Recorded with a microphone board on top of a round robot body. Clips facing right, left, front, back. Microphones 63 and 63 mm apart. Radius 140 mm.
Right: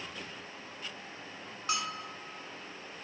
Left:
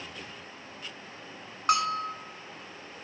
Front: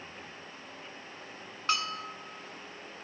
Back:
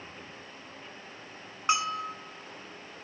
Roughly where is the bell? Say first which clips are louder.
Left 10 dB, back 4 dB; left.